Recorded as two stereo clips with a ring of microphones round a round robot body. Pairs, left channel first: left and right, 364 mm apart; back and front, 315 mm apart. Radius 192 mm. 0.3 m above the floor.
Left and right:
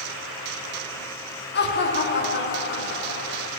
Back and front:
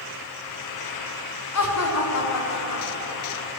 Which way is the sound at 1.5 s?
150° left.